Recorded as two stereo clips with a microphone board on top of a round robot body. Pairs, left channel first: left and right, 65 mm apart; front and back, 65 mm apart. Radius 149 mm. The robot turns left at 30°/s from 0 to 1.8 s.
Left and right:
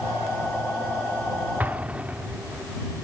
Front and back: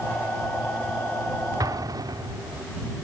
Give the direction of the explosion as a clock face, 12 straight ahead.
5 o'clock.